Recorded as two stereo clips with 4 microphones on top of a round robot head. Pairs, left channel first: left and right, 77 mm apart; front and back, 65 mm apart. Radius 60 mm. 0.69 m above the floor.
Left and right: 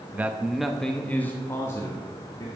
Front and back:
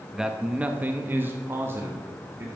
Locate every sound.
0.1 s a man speaking: 105° right, 0.7 m; by 2.5 s 135° left, 1.3 m